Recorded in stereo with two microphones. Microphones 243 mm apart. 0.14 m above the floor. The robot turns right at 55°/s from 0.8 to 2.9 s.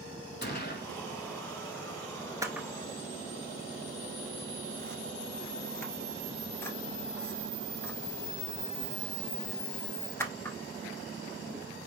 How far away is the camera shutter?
About 0.6 m.